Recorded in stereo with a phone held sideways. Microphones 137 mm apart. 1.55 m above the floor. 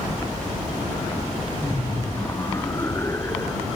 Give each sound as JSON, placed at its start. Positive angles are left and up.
{"t": 1.6, "sound": "laughter", "side_deg": 20}